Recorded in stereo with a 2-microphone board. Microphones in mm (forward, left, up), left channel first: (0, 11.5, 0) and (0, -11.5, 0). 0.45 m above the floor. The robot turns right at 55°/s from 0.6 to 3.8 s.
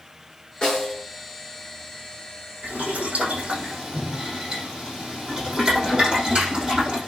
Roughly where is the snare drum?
Left.